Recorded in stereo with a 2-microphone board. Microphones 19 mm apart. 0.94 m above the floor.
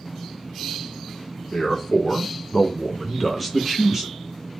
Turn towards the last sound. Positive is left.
turn(degrees=-15)  # may be behind; listen again after turning